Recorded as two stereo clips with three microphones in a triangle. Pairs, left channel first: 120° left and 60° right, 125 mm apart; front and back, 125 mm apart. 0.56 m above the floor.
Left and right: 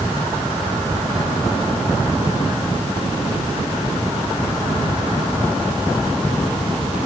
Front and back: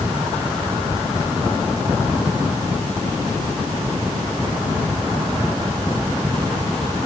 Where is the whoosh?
I don't hear a whoosh.